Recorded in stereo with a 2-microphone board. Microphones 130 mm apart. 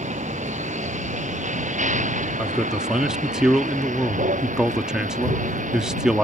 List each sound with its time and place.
0.0 s a vehicle: 70° right (ahead or behind); by 6.2 s 85° right
2.4 s a man speaking: 5° right (ahead or behind)